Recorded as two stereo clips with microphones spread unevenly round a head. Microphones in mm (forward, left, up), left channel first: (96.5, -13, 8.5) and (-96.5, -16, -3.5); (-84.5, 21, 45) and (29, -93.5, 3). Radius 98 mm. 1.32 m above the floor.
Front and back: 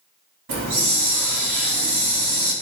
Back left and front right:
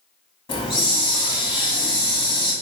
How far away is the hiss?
About 2.5 m.